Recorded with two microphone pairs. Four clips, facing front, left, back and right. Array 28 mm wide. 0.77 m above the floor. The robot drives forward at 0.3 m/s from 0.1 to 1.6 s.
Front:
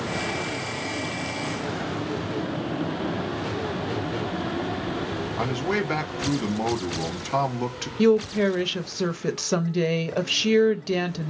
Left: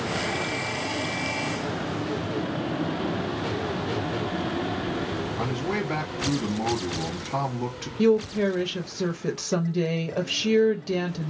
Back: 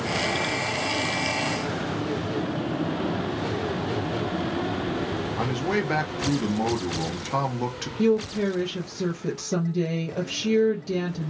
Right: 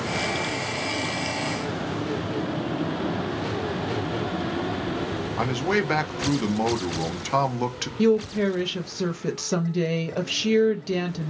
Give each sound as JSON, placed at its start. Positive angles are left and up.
{"t": 5.4, "sound": "a man speaking", "azimuth_deg": -80, "distance_m": 0.7}
{"t": 8.0, "sound": "a woman speaking", "azimuth_deg": -5, "distance_m": 0.6}